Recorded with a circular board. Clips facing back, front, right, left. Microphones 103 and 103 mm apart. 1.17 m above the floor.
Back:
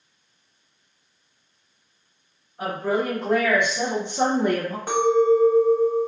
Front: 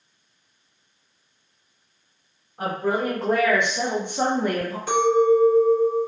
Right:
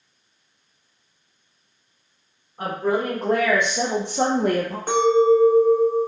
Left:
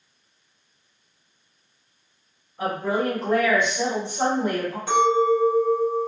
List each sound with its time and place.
2.6 s a woman speaking: 40° right, 1.1 m; by 4.8 s 130° right, 0.5 m
4.9 s a clink: 135° right, 1.1 m